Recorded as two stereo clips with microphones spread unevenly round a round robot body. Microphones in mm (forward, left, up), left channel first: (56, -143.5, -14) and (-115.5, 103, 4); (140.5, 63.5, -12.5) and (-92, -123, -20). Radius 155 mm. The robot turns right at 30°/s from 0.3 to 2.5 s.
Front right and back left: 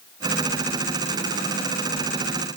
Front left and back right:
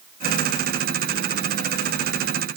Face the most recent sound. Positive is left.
No sound to turn to.